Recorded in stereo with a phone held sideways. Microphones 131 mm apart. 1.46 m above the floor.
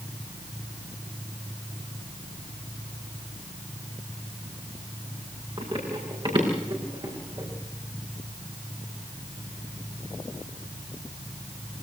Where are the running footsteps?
40° right (ahead or behind), 7.5 m; by 7.5 s 30° right (ahead or behind), 7.5 m.